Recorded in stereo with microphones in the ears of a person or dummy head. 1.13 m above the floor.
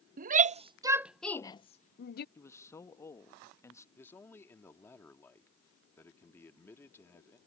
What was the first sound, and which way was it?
A shout, 45° right (ahead or behind).